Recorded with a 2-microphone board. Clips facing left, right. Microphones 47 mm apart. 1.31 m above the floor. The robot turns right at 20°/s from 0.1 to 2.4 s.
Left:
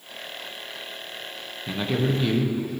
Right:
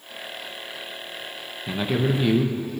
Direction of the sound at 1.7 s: 5° right (ahead or behind).